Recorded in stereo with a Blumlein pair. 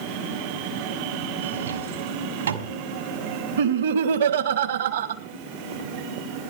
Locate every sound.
1.4 s a drawer: 70° right, 2 m
3.6 s laughter: 60° right, 1.6 m